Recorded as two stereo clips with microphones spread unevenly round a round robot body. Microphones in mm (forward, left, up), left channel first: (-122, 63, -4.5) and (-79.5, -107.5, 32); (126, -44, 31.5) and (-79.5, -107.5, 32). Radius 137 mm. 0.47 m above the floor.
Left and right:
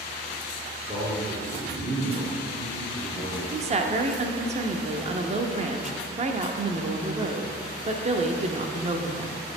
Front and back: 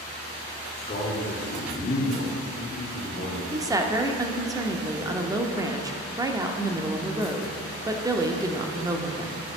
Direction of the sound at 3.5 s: 105° right.